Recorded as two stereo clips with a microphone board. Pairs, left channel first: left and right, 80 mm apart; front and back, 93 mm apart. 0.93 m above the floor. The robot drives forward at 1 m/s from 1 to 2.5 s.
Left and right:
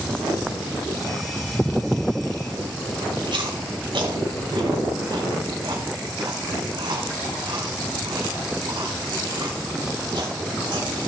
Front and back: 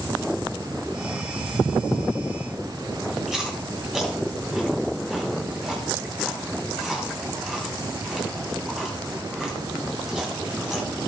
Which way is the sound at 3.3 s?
95° right.